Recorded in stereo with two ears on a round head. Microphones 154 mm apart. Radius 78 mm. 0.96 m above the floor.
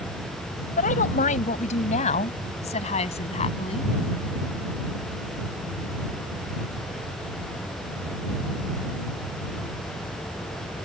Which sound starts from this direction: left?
A woman speaking, at 0.8 s.